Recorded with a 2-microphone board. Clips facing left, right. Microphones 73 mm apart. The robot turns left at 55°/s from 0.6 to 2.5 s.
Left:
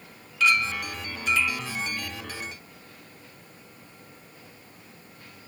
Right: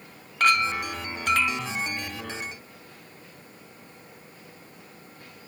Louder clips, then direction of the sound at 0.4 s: Right 2 dB; 65° right.